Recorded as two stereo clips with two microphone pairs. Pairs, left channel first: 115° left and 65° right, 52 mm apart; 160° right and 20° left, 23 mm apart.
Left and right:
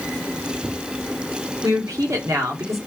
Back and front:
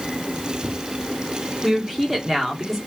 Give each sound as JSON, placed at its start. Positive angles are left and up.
{"t": 1.6, "sound": "a woman speaking", "azimuth_deg": -70, "distance_m": 3.0}